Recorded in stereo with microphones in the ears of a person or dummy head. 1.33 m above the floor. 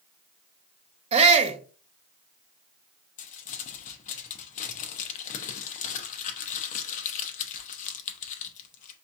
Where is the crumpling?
40° left (ahead or behind), 0.6 m.